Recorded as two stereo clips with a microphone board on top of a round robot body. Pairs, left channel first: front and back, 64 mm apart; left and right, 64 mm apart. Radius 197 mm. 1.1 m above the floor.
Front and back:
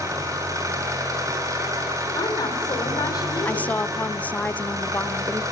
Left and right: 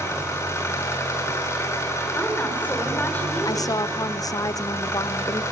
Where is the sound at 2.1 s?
25° left, 5 m.